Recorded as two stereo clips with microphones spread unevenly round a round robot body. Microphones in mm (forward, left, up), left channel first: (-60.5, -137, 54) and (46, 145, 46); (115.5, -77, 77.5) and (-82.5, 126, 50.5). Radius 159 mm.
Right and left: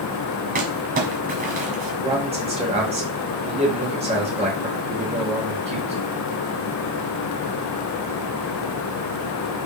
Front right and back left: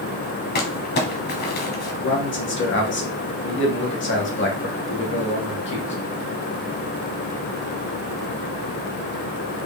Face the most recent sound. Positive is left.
turn(degrees=0)